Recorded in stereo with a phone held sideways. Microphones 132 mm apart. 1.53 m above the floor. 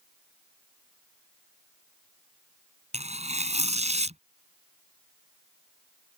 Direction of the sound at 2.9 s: 60° right (ahead or behind).